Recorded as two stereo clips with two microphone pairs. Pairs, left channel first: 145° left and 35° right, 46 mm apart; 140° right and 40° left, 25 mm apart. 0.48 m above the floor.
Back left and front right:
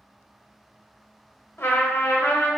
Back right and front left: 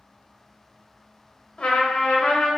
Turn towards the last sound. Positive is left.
turn(degrees=175)